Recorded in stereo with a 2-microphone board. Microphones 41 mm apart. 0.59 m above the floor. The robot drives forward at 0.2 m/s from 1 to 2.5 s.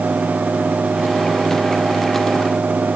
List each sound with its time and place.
Only background noise.